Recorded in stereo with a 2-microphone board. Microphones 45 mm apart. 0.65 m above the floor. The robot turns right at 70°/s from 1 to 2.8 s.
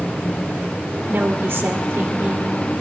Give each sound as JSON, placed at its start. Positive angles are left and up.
{"t": 1.1, "sound": "a woman speaking", "azimuth_deg": -130, "distance_m": 2.0}